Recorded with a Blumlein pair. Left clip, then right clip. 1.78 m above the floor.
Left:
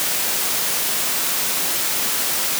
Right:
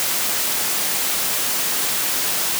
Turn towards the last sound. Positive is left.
No sound to turn to.